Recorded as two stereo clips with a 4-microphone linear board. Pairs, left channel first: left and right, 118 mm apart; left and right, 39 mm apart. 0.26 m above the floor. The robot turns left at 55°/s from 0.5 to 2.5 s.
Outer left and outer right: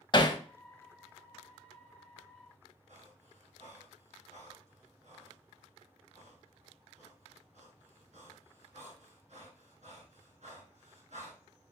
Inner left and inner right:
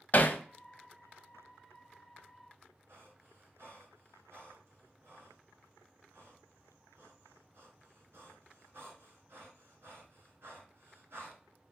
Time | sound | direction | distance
0.1 | hammering | 40° left (ahead or behind) | 0.5 m
2.9 | breathing | 70° right (ahead or behind) | 1.5 m